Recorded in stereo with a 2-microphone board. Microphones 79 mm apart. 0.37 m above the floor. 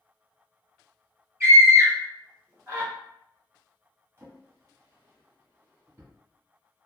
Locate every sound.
1.4 s a scream: 30° right (ahead or behind), 1.6 m
4.2 s a drawer: 35° right (ahead or behind), 1.5 m